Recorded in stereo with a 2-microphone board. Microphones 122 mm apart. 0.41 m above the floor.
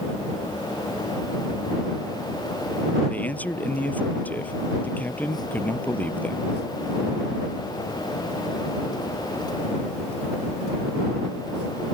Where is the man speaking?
15° left (ahead or behind).